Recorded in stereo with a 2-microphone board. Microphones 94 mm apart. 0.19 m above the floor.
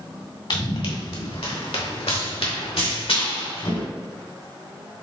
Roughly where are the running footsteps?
Left.